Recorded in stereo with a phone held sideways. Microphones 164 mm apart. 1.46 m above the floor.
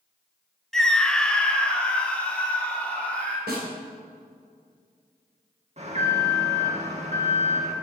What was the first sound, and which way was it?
A scream, centre (ahead or behind).